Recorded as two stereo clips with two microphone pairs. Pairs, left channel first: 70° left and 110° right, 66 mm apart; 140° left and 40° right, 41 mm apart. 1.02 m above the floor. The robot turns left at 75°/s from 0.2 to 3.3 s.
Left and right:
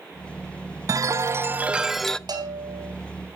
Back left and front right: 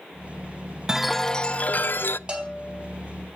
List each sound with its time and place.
0.9 s a chime: 115° right, 0.5 m; by 2.2 s 145° left, 0.5 m
2.3 s a bell: 110° right, 4 m; by 2.9 s 150° right, 4 m